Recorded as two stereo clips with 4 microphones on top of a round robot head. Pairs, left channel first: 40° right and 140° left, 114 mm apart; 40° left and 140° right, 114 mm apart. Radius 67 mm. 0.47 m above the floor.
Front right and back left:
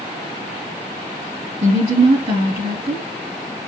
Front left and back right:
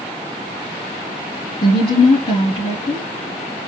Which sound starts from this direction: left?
A woman speaking, at 1.6 s.